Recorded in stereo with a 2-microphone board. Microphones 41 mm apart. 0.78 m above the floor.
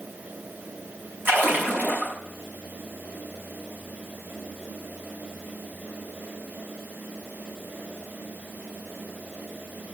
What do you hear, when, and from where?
1.2 s a splash: 50° right (ahead or behind), 6 m